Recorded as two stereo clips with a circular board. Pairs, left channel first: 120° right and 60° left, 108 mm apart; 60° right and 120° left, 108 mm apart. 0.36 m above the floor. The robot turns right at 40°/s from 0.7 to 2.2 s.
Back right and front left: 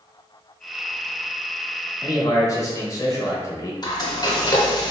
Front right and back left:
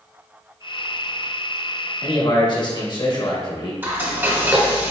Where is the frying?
170° right, 0.9 m.